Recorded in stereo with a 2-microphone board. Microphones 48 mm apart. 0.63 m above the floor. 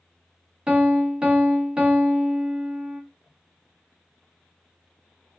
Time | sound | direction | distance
0.7 | a piano | 20° right (ahead or behind) | 0.6 m